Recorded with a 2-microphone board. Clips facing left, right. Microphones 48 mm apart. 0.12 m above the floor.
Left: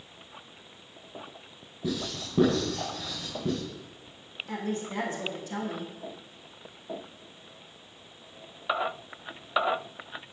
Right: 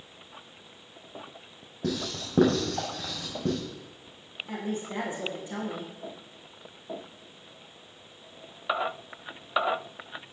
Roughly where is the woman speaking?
Right.